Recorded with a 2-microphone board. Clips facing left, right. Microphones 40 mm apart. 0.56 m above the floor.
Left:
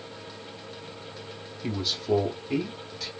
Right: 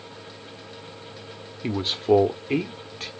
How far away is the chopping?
No chopping in this recording.